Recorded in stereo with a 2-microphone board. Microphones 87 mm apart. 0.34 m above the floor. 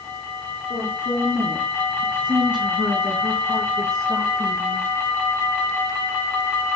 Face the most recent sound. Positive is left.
turn(degrees=-40)  # may be behind; listen again after turning